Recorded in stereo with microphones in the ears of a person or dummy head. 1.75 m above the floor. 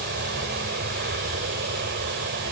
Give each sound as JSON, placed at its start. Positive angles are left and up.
{"t": 0.0, "sound": "an aircraft", "side_deg": -55}